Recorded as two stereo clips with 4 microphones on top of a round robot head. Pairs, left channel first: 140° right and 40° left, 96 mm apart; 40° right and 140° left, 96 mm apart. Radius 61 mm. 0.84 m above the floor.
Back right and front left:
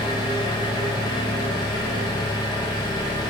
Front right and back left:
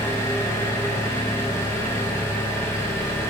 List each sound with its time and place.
0.0 s an engine running: 100° right, 0.8 m